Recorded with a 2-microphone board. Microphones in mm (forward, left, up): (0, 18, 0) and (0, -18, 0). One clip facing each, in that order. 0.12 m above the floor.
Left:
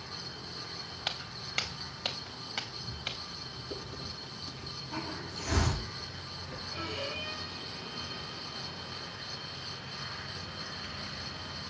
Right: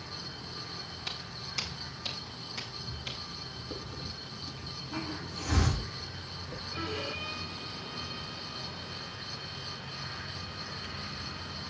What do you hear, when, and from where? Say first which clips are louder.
1.1 s footsteps: left 4 dB; 55° left (ahead or behind), 2.5 m; by 3.6 s 50° left (ahead or behind), 3.5 m
3.7 s a hiss: even; 5° right (ahead or behind), 8 m
6.7 s a violin: right 1 dB; 25° right (ahead or behind), 4 m